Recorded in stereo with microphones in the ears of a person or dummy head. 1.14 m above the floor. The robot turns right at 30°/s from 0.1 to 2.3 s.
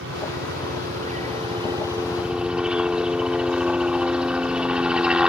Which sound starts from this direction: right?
A helicopter, at 0.0 s.